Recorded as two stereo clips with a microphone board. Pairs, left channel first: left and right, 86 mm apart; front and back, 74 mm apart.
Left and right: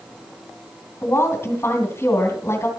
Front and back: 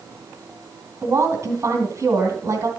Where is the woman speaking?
145° left, 2.5 m.